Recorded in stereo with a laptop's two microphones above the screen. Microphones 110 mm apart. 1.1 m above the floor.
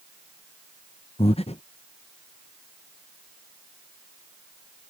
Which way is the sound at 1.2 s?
65° left (ahead or behind).